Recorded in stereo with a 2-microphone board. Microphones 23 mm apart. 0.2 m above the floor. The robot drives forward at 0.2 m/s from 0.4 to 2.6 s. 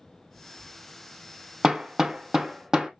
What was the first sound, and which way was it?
Hammering, 30° right (ahead or behind).